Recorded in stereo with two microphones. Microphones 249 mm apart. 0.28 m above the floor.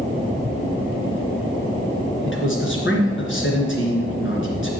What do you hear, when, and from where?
2.2 s a man speaking: 55° left (ahead or behind), 3 m